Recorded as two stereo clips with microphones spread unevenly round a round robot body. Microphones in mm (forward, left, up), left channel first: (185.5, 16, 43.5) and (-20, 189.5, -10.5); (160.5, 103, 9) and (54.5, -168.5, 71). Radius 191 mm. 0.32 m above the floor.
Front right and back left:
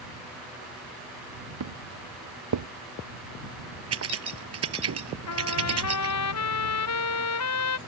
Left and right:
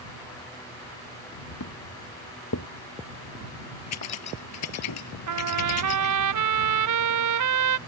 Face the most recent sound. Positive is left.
turn(degrees=-90)